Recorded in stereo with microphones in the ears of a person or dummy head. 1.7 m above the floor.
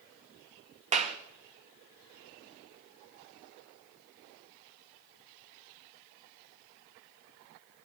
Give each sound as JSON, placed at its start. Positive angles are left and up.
{"t": 0.9, "sound": "a clap", "side_deg": -30, "distance_m": 2.5}